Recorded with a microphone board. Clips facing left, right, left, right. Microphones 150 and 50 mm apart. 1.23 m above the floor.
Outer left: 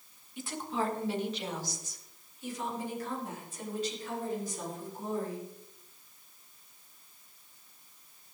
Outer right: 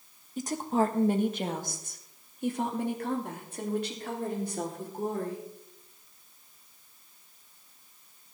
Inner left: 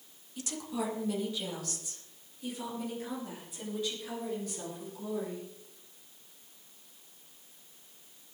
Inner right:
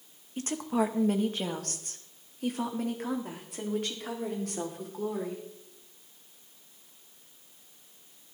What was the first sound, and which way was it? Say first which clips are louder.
A woman speaking: outer right 7 dB, inner right 7 dB; 40° right (ahead or behind).